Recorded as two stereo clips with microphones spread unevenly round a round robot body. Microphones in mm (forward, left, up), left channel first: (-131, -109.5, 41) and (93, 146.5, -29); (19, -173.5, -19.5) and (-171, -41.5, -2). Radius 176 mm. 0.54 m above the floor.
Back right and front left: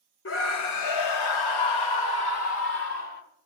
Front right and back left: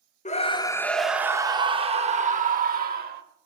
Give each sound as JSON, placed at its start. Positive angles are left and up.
{"t": 0.2, "sound": "a scream", "azimuth_deg": -70, "distance_m": 0.8}